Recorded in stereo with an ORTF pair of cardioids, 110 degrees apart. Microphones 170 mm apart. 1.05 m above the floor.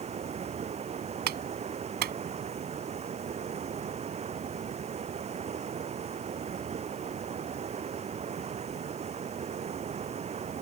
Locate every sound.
0.0 s running water: 40° right
1.3 s a clap: 70° right